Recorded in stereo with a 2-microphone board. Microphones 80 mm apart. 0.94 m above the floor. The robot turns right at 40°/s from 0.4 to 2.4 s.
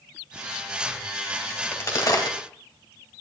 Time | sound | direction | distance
1.5 | a crack | 25° left (ahead or behind) | 2.5 m